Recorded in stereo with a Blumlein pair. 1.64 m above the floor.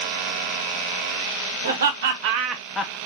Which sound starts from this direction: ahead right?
Laughter, at 1.6 s.